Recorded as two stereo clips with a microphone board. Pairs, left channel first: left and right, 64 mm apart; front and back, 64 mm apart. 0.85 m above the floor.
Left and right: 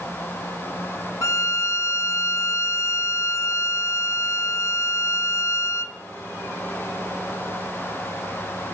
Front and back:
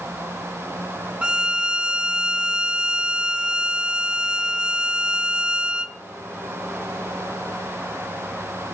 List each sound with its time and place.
1.2 s a violin: 105° left, 0.8 m